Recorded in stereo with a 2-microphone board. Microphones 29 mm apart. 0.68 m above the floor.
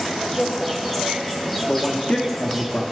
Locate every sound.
0.0 s an insect: 10° left (ahead or behind), 2.5 m
1.7 s a man speaking: 40° left (ahead or behind), 0.8 m